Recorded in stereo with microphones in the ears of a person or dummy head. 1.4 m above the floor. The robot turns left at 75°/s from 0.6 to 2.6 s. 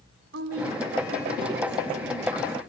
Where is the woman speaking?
90° right, 4 m; by 2.6 s 120° left, 4 m.